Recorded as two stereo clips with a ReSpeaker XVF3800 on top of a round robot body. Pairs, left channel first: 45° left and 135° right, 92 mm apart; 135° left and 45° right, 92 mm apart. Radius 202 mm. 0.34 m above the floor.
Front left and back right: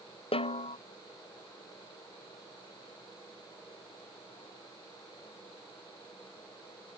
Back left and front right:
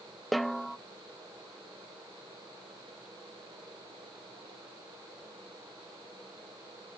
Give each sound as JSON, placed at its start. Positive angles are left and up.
{"t": 0.3, "sound": "a snare drum", "azimuth_deg": 45}